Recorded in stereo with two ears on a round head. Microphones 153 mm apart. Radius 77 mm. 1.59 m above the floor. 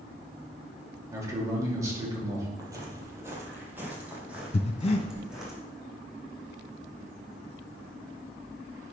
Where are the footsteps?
25° right (ahead or behind), 1.7 m; by 5.5 s 5° right (ahead or behind), 3.5 m.